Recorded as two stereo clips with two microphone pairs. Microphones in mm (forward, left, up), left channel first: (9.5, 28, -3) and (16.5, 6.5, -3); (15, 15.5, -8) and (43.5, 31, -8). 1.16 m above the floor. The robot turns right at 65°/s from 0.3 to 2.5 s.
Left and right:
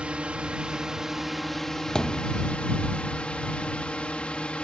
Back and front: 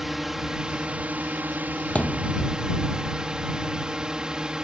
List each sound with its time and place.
0.0 s a drone: 50° right; by 4.6 s 90° left
1.9 s a thud: 165° left; by 2.4 s 165° right